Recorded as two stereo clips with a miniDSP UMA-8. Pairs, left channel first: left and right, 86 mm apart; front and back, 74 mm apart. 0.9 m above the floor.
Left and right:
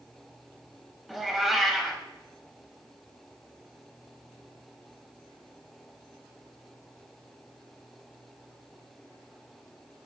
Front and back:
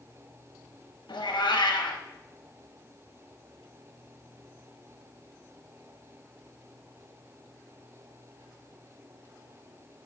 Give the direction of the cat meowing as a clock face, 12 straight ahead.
12 o'clock.